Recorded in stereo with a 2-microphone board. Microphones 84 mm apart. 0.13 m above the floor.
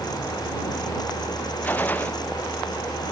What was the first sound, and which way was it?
A gunshot, 20° left (ahead or behind).